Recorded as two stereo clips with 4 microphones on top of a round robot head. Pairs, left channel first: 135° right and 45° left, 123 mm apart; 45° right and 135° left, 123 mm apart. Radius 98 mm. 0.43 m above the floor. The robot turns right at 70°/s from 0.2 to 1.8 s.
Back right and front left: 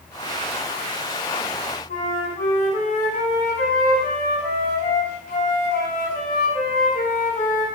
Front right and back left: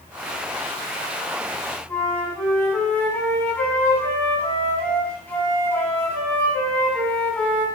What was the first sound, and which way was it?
A flute, 125° right.